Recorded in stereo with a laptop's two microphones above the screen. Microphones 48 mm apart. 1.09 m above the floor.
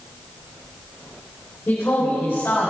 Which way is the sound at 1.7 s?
60° left (ahead or behind).